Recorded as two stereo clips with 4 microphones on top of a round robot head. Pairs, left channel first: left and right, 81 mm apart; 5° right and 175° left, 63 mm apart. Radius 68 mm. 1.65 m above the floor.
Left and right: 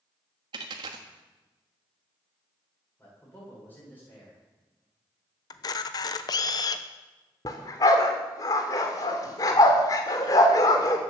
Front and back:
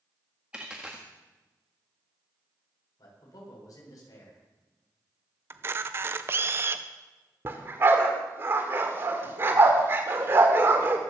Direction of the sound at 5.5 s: 125° left.